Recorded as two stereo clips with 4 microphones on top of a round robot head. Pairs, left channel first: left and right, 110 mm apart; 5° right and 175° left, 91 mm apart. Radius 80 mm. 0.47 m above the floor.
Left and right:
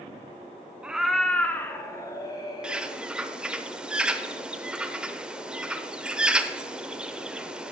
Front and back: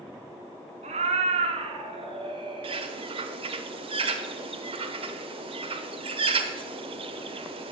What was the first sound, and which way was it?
A cat meowing, 170° right.